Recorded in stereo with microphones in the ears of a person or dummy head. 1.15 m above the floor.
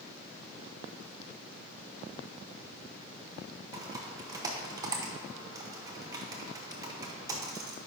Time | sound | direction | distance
3.7 | typing on a keyboard | 15° right (ahead or behind) | 0.8 m